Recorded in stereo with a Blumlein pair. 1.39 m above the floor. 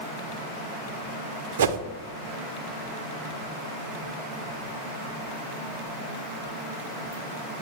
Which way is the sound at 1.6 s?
60° right.